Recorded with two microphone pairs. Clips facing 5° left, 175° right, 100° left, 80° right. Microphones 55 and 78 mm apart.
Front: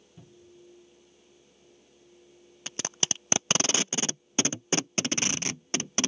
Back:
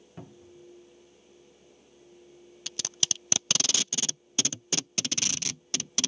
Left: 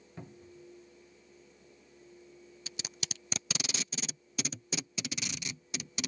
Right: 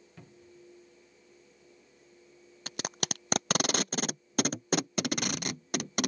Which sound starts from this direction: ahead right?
Tape being pulled, at 2.7 s.